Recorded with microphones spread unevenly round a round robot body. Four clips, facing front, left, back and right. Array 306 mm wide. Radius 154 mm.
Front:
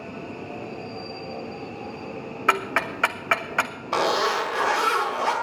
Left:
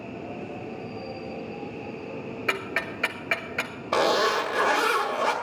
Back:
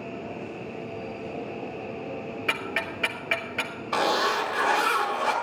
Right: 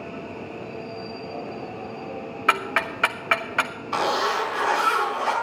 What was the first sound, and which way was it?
Ticking, 30° right.